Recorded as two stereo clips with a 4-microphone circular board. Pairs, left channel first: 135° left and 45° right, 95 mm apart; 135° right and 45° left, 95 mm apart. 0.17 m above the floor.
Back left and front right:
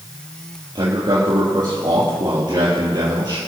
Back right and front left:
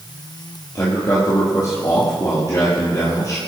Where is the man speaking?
85° right, 4 m.